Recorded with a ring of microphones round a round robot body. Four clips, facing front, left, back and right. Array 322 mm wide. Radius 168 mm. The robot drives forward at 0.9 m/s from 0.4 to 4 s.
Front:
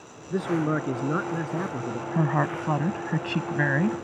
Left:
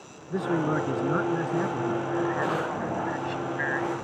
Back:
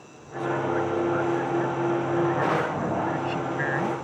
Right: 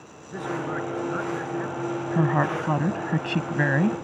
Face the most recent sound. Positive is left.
turn(degrees=-65)